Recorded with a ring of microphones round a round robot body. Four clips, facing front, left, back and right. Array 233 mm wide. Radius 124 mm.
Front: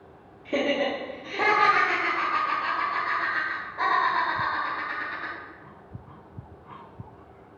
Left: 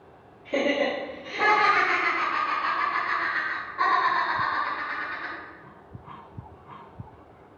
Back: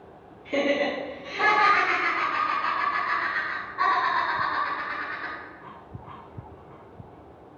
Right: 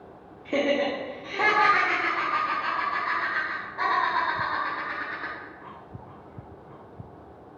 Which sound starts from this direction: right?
Laughter, at 0.5 s.